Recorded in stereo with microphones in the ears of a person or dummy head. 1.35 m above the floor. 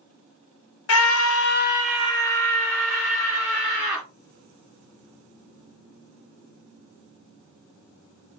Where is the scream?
80° left, 0.6 m; by 4.0 s 10° right (ahead or behind), 1.7 m.